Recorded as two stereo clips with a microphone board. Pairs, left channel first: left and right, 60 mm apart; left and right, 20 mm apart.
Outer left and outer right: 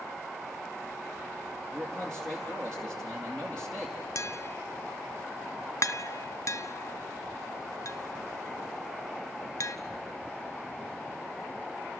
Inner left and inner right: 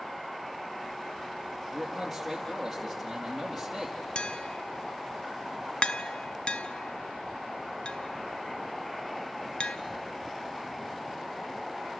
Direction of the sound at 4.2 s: 55° left (ahead or behind).